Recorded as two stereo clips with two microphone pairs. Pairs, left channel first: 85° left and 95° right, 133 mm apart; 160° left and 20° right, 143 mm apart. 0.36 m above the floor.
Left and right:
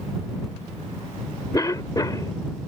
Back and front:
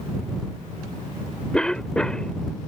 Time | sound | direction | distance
1.5 | a cough | 75° left | ?